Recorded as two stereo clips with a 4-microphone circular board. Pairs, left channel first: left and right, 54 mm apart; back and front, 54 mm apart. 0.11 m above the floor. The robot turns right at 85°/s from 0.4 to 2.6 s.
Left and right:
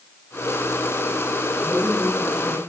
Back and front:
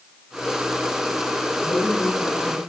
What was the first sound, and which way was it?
A man speaking, 175° right.